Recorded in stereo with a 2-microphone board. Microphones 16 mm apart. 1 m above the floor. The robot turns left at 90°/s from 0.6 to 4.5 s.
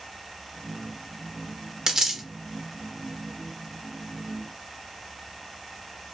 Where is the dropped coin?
35° right (ahead or behind), 0.8 m; by 2.2 s 15° right (ahead or behind), 0.8 m.